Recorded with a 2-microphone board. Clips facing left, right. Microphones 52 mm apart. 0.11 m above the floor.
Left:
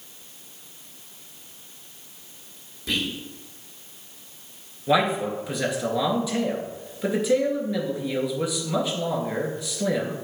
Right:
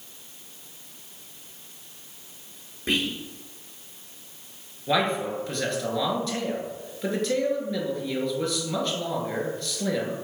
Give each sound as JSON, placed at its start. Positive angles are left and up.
{"t": 2.9, "sound": "whispering", "side_deg": -40, "distance_m": 2.5}
{"t": 4.9, "sound": "a man speaking", "side_deg": 10, "distance_m": 1.5}